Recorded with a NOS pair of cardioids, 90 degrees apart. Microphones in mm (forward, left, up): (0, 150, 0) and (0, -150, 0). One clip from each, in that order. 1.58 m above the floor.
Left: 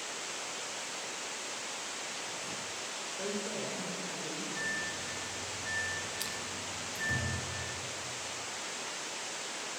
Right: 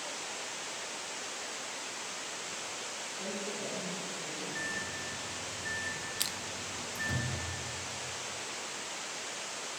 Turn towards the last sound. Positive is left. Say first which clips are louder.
# right 2 dB
turn(degrees=-30)